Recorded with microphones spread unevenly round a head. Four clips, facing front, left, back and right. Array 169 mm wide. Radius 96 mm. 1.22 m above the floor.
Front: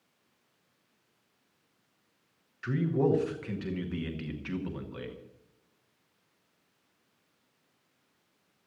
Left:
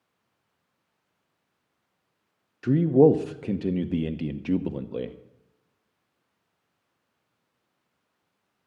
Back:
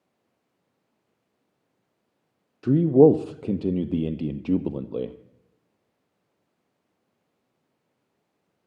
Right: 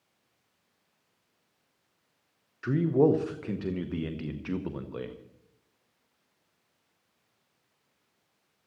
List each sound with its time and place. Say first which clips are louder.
2.6 s a man speaking: left 6 dB, back 13 dB; 165° left, 0.7 m